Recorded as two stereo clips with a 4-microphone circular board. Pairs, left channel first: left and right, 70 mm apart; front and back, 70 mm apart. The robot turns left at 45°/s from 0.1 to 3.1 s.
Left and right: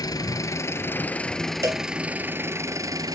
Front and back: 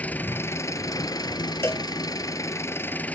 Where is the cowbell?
50° right, 0.7 m; by 1.8 s 60° right, 0.7 m.